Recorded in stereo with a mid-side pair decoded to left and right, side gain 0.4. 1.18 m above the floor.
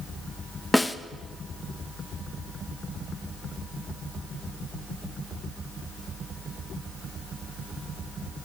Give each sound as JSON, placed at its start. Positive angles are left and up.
{"t": 0.7, "sound": "a snare drum", "azimuth_deg": 15, "distance_m": 0.8}